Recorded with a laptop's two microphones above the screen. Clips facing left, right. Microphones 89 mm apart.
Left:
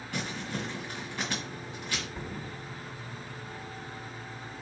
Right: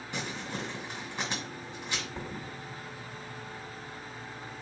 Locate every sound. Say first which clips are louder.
0.1 s crumpling: left 2 dB; 25° right (ahead or behind), 1.9 m
2.1 s a thud: even; 30° right (ahead or behind), 1.1 m